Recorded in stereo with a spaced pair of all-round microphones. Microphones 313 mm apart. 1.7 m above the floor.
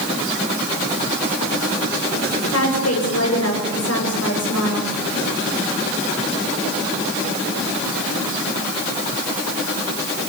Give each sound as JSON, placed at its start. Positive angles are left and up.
{"t": 2.5, "sound": "a woman speaking", "side_deg": 50, "distance_m": 8.0}